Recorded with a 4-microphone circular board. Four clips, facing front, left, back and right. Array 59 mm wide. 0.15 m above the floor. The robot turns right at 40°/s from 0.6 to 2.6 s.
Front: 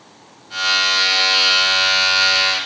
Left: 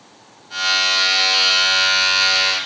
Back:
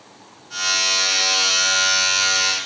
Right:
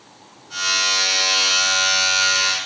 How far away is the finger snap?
I don't hear a finger snap.